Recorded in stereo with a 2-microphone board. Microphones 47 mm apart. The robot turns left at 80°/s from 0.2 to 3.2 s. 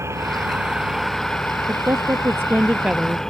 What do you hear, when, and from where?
0.0 s an engine running: 110° right; by 3.3 s 10° left
1.7 s a woman speaking: 60° right; by 3.2 s 175° left